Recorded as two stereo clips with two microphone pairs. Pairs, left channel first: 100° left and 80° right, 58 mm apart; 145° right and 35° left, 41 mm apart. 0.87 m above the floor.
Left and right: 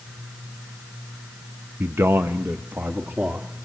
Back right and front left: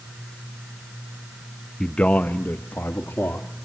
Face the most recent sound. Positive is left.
turn(degrees=-140)